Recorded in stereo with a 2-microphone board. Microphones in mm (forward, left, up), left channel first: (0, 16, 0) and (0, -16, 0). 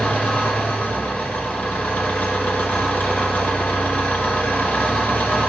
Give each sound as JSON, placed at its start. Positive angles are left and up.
{"t": 0.0, "sound": "an engine running", "side_deg": 80, "distance_m": 1.1}